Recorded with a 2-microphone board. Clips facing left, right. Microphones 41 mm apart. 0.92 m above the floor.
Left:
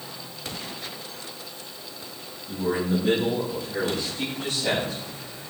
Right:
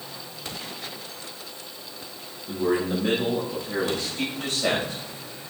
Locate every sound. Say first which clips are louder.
2.5 s a man speaking: right 1 dB; 80° right, 5 m